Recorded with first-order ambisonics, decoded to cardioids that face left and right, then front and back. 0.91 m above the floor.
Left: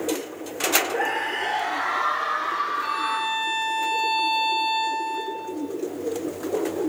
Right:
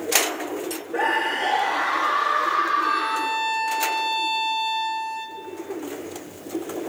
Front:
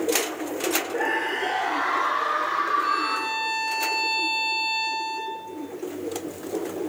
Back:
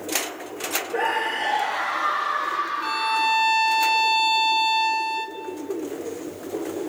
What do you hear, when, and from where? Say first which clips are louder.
0.9 s a scream: right 2 dB, back 2 dB; 135° right, 2 m; by 3.4 s 85° right, 2.5 m
2.8 s a violin: right 2 dB, back 2 dB; 165° right, 5 m